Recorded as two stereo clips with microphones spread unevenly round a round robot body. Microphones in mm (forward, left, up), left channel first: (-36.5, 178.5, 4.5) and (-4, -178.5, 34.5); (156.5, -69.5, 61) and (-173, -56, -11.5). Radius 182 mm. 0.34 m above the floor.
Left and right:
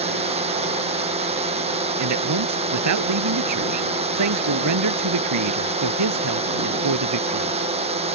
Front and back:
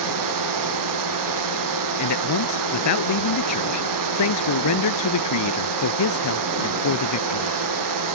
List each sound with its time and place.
0.0 s a drone: 160° right
2.0 s a man speaking: 40° right